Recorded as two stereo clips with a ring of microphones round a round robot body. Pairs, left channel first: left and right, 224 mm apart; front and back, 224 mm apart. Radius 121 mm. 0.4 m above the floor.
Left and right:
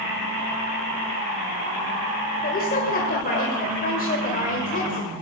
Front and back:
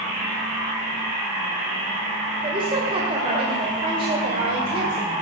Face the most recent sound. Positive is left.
turn(degrees=120)